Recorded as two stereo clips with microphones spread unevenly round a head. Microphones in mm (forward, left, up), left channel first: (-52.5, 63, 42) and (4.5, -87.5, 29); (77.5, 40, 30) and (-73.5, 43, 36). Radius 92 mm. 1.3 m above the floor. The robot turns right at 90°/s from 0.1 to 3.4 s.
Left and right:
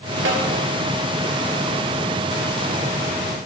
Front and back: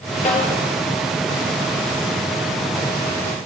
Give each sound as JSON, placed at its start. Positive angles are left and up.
{"t": 0.2, "sound": "a snare drum", "azimuth_deg": -55, "distance_m": 1.5}